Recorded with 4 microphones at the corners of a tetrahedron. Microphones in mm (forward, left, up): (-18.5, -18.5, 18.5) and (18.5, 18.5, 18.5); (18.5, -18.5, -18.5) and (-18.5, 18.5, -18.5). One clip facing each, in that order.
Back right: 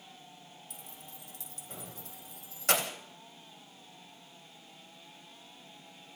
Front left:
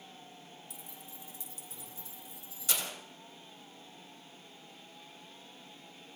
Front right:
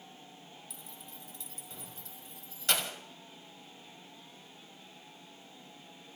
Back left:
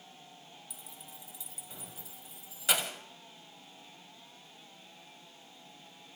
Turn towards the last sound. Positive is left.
turn(degrees=-140)